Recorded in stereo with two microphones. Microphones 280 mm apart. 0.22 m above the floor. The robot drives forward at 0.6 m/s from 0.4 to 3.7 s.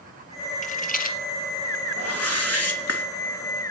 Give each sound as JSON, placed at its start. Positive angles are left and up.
{"t": 0.6, "sound": "a rattle", "side_deg": 25, "distance_m": 2.0}
{"t": 2.0, "sound": "a whoosh", "side_deg": 55, "distance_m": 3.0}